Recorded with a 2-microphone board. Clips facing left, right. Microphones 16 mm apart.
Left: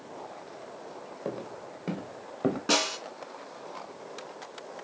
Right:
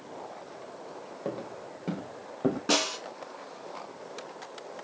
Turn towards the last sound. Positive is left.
turn(degrees=10)  # may be behind; listen again after turning